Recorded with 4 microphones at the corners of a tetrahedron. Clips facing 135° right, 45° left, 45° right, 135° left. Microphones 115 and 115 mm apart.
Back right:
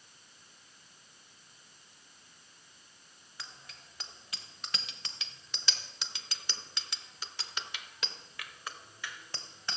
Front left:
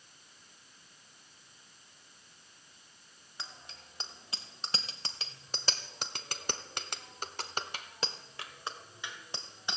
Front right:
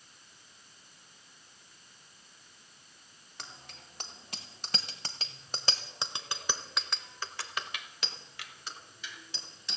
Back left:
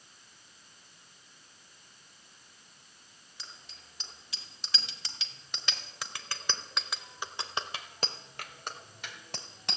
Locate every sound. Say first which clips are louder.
3.4 s a bicycle bell: front left 2 dB, front right 4 dB; 20° right, 2 m; by 9.8 s 120° left, 1.9 m